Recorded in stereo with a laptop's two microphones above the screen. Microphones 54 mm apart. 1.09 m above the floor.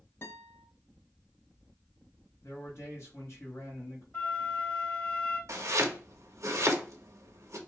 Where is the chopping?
65° right (ahead or behind), 0.7 m.